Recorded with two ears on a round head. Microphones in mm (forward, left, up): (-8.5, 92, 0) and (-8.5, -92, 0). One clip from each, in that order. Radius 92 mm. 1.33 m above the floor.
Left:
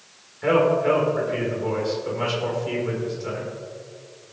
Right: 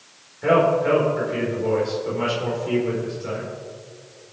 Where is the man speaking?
15° left (ahead or behind), 4.5 m.